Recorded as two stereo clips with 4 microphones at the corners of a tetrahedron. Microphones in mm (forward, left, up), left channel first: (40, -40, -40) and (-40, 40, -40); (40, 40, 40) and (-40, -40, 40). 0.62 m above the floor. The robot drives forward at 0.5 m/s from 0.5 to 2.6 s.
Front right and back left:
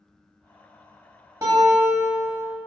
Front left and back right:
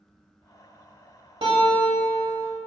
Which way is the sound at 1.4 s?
165° right.